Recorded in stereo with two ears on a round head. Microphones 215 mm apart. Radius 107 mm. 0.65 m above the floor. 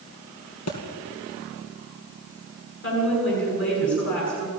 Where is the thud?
70° left (ahead or behind), 3.5 m.